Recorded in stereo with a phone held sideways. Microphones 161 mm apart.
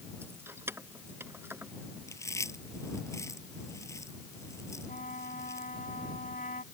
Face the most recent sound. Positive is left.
turn(degrees=60)  # may be behind; listen again after turning